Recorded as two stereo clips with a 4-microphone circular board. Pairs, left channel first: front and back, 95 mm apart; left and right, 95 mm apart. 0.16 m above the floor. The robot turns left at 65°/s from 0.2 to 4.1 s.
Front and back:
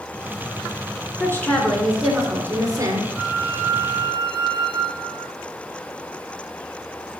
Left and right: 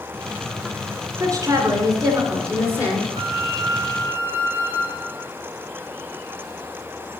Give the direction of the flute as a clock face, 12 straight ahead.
3 o'clock.